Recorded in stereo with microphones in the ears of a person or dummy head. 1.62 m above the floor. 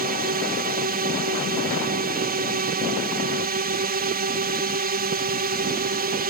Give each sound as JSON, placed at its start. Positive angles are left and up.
{"t": 0.0, "sound": "a drone", "side_deg": -45}